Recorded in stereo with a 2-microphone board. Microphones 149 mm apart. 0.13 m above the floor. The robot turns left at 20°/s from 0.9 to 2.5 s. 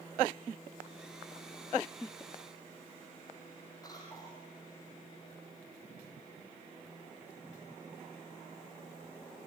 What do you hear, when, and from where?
3.8 s a cough: 25° left (ahead or behind), 4 m